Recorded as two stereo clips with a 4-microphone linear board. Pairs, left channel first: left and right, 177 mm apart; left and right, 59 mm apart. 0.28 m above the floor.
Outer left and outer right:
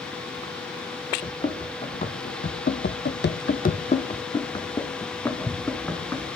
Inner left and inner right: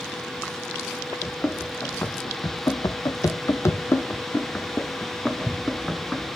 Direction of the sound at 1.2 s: 25° left (ahead or behind).